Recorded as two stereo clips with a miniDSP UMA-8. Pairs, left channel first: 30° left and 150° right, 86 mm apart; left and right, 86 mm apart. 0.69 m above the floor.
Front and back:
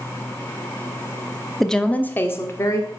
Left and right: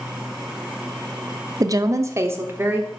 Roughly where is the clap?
I don't hear a clap.